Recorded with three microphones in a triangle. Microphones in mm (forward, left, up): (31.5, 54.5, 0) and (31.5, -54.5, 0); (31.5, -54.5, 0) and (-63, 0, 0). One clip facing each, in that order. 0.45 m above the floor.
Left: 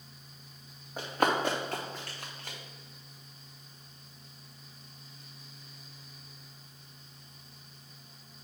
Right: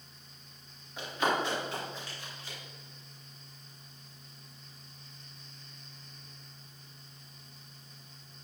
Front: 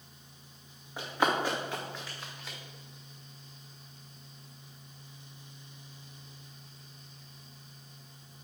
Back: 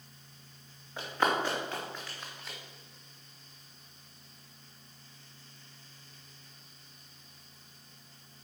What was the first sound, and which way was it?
Running footsteps, 45° left.